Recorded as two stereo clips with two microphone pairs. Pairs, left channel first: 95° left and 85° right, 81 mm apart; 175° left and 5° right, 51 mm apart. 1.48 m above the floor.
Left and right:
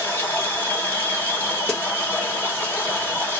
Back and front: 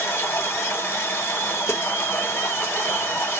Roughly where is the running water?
Behind left.